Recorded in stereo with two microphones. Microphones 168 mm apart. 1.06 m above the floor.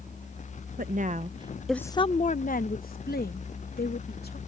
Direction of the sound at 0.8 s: 55° right (ahead or behind).